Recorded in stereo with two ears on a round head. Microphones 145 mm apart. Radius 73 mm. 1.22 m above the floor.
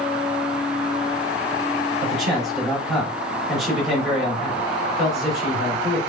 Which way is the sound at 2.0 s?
Centre (ahead or behind).